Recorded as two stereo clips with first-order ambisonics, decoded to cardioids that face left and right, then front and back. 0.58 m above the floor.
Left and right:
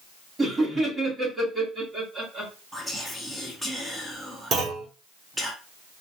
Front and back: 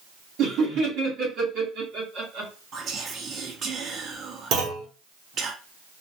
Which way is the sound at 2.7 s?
170° right.